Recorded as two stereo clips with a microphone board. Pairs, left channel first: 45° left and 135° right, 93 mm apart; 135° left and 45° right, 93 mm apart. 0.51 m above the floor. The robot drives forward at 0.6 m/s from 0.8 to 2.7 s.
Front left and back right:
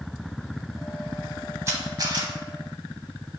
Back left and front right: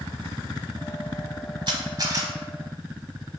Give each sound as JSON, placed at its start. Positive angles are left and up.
{"t": 1.7, "sound": "a camera shutter", "azimuth_deg": -75, "distance_m": 0.9}